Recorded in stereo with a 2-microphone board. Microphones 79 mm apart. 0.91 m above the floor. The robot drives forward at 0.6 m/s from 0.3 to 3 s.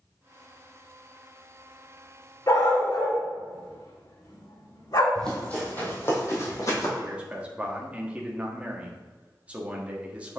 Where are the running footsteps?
10° left (ahead or behind), 2.5 m; by 6.9 s 50° left (ahead or behind), 3 m.